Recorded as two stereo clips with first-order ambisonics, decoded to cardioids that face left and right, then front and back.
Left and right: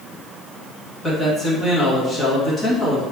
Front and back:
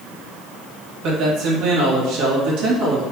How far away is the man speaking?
About 1.8 m.